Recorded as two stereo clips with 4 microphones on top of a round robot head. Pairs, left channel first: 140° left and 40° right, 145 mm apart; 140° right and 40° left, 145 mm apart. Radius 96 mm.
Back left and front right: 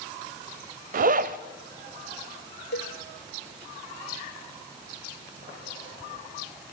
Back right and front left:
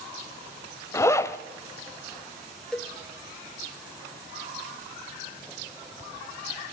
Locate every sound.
0.9 s a zipper: 65° right, 1.1 m
2.7 s a cowbell: 135° left, 1.4 m